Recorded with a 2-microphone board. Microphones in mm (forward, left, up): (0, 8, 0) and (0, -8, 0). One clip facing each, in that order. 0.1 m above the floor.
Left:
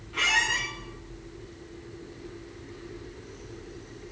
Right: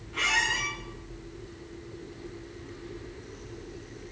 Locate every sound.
0.1 s a squeak: 10° left (ahead or behind), 2.5 m